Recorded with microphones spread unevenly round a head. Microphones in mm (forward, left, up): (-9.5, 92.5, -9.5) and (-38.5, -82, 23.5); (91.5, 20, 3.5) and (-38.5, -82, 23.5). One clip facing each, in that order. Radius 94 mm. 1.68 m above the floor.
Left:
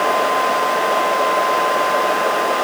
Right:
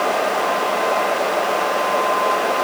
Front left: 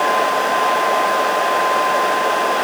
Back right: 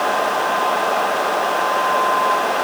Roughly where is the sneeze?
No sneeze in this recording.